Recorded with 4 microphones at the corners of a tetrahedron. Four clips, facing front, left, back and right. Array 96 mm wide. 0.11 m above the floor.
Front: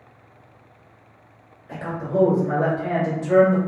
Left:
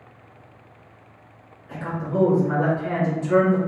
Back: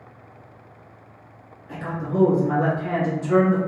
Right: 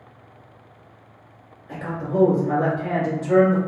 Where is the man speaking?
35° right, 1.9 m.